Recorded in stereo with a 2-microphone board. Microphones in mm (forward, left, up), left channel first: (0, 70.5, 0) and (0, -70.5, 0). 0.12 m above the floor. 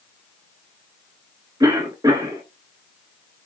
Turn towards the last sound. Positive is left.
turn(degrees=-25)  # may be behind; listen again after turning